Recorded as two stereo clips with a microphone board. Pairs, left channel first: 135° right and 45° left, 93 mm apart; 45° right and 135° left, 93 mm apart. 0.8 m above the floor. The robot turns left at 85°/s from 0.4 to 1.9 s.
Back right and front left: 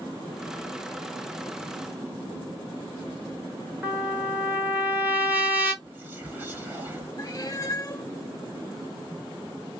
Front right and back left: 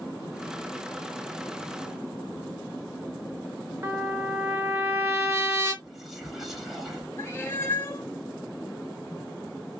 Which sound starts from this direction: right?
A cat meowing, at 7.2 s.